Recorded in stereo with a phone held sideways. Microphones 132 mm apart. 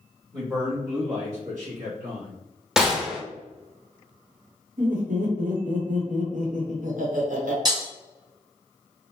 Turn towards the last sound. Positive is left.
turn(degrees=-30)  # may be behind; listen again after turning